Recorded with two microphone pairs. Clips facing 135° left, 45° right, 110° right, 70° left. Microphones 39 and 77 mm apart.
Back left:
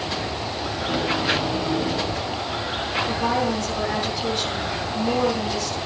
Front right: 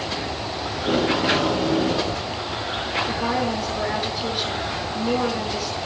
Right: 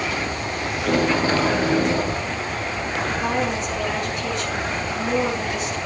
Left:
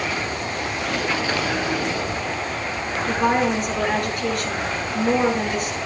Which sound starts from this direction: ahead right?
Tape being pulled, at 0.8 s.